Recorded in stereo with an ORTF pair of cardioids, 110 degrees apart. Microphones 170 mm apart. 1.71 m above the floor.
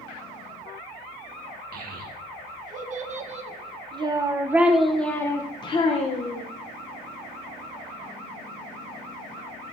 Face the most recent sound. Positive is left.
turn(degrees=50)